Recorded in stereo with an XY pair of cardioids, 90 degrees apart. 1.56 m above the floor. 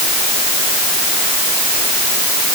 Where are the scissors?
I don't hear scissors.